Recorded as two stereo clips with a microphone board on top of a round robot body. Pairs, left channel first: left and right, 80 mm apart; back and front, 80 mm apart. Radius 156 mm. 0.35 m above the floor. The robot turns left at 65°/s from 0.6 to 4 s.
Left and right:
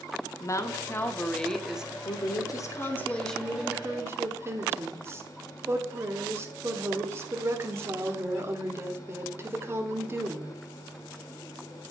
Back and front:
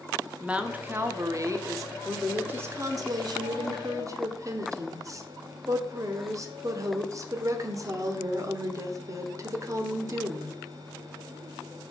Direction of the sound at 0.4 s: 65° left.